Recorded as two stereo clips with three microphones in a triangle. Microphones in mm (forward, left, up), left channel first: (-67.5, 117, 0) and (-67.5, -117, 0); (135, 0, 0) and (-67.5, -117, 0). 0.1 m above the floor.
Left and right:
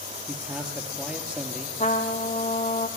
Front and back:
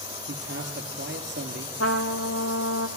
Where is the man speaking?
175° right, 1.9 m.